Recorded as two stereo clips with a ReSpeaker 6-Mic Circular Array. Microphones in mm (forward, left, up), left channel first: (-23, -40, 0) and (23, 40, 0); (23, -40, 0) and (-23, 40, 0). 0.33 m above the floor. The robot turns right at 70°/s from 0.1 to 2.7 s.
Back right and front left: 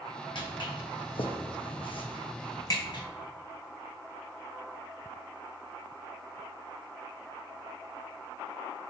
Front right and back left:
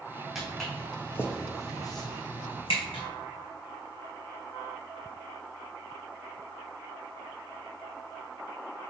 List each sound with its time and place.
0.3 s footsteps: 155° right, 0.9 m; by 3.0 s 80° right, 1.2 m